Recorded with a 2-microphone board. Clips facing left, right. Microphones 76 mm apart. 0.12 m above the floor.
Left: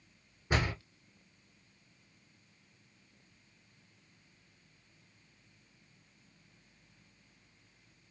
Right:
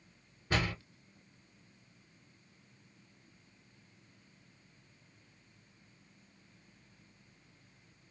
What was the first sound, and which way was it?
A door slam, 15° left (ahead or behind).